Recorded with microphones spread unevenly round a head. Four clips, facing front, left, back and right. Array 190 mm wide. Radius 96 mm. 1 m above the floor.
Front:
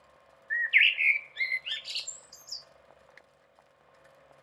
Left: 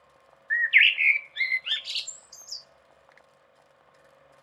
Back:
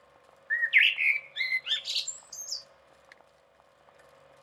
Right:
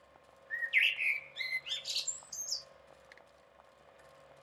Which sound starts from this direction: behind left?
A bird, at 0.5 s.